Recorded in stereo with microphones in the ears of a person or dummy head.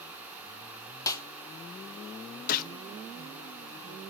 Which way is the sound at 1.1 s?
20° left (ahead or behind).